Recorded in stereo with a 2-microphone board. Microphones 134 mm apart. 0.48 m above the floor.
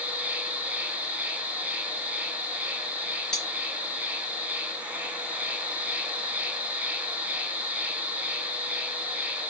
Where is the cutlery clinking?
5° left (ahead or behind), 4.5 m.